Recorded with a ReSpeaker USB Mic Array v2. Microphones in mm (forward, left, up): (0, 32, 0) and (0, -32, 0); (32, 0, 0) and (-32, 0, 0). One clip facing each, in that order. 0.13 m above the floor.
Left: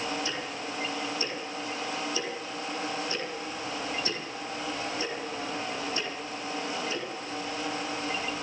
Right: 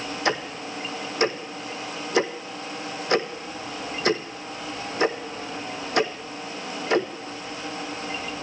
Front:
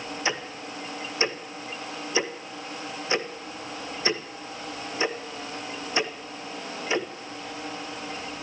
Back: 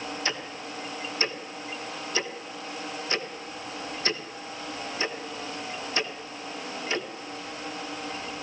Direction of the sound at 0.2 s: 70° right.